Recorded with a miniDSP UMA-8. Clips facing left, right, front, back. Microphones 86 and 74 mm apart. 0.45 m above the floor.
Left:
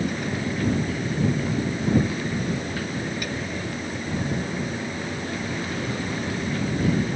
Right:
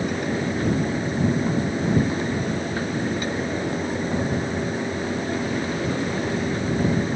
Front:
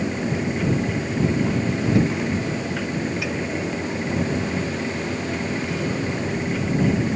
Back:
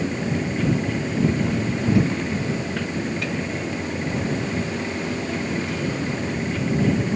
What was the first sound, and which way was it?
Only background noise.